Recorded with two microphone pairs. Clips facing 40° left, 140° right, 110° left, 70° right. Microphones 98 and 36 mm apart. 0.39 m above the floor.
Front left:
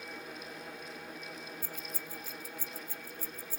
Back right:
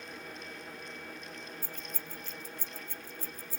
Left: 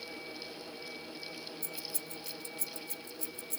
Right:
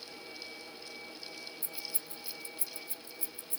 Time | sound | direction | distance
1.6 | keys jangling | 25° right | 0.8 m